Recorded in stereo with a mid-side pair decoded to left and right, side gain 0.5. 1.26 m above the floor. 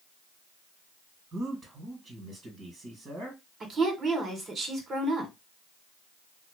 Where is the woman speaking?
45° right, 1.6 m.